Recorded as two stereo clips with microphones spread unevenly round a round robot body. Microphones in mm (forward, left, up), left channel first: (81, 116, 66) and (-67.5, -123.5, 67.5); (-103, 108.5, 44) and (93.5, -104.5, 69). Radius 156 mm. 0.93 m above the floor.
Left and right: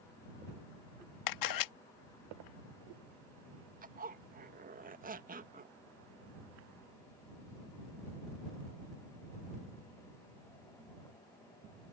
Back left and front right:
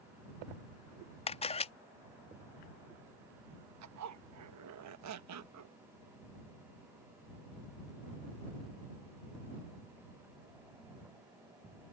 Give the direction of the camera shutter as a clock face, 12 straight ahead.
10 o'clock.